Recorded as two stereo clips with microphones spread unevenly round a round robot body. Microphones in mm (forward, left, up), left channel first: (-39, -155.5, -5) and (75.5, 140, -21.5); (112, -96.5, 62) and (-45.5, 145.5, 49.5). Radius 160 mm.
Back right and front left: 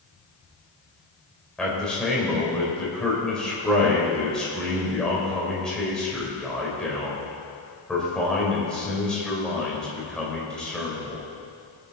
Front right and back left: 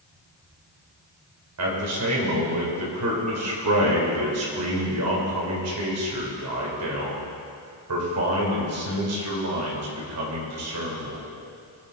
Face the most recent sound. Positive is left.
turn(degrees=160)